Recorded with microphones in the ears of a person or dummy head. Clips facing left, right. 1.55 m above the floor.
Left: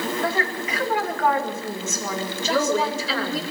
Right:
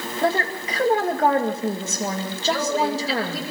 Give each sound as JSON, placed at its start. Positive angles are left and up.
{"t": 0.2, "sound": "a woman speaking", "side_deg": -25, "distance_m": 2.5}
{"t": 2.5, "sound": "a woman speaking", "side_deg": 80, "distance_m": 5.0}